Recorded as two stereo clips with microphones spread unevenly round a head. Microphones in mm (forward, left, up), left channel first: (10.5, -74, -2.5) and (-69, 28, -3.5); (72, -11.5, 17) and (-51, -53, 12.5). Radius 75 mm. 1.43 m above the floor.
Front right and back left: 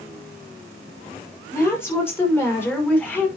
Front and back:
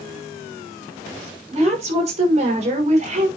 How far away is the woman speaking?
About 6.5 m.